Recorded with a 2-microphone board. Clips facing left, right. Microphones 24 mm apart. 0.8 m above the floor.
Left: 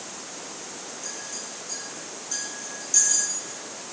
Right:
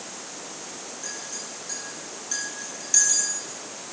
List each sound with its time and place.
1.0 s a clink: 30° right (ahead or behind), 4.5 m